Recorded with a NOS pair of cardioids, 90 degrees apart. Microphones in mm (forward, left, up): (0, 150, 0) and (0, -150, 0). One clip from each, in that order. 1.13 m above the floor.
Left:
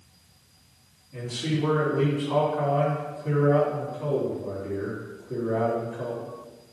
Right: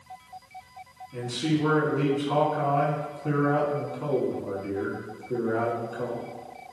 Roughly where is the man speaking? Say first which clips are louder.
Right 2 dB; ahead right.